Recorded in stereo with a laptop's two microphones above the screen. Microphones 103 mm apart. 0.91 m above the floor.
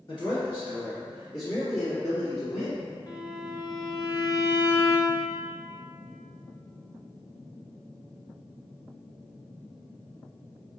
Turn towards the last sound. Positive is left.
turn(degrees=35)  # may be behind; listen again after turning